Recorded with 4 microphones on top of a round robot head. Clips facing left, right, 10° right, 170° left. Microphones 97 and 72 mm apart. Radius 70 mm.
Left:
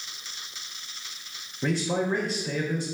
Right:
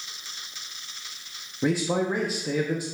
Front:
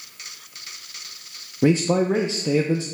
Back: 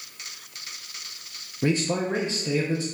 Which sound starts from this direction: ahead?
A man speaking, at 1.6 s.